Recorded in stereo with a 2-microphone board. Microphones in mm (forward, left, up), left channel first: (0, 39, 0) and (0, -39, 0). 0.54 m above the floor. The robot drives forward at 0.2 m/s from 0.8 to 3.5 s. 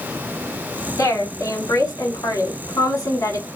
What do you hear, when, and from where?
1.0 s a woman speaking: 50° left (ahead or behind), 1.7 m; by 3.5 s 45° left (ahead or behind), 1.8 m